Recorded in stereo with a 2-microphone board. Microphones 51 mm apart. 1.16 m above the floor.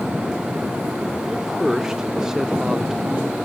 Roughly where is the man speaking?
Centre.